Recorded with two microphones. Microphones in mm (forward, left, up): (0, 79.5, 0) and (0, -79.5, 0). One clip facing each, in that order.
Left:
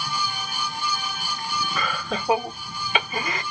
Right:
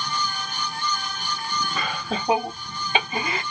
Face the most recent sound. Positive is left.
turn(degrees=-30)  # may be behind; listen again after turning